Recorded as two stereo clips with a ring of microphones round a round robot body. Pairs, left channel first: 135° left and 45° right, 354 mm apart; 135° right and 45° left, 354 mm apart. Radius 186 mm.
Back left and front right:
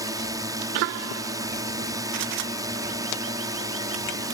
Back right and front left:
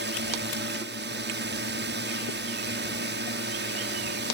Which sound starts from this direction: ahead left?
A drone, at 0.0 s.